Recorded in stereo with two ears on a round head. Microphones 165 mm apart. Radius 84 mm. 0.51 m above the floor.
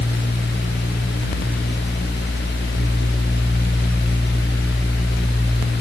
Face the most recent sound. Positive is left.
No sound to turn to.